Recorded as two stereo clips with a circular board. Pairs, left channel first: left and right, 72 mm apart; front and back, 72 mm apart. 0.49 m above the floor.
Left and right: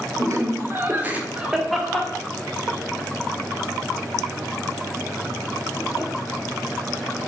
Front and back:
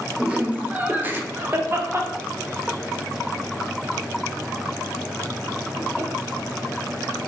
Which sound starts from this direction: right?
Laughter, at 0.2 s.